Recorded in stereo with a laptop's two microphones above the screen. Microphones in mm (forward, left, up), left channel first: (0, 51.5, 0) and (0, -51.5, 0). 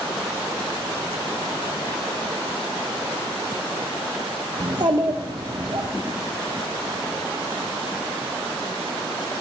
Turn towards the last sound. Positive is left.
turn(degrees=-45)  # may be behind; listen again after turning